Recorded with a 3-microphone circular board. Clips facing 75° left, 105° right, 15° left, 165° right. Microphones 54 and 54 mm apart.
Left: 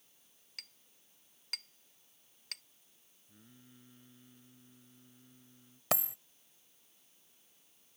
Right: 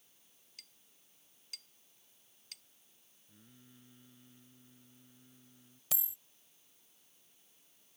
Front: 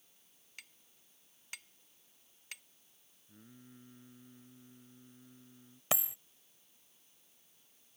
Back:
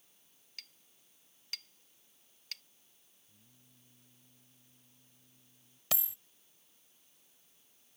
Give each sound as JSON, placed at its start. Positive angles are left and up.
{"t": 0.6, "sound": "a clink", "azimuth_deg": 85}
{"t": 3.3, "sound": "singing", "azimuth_deg": -10}
{"t": 5.9, "sound": "a dropped coin", "azimuth_deg": 80}